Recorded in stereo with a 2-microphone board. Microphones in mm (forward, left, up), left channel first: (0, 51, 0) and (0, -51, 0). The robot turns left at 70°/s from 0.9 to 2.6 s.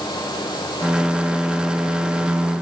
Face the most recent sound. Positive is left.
No sound to turn to.